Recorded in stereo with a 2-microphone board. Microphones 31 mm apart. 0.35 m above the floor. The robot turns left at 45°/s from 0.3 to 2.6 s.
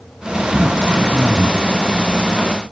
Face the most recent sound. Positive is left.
turn(degrees=180)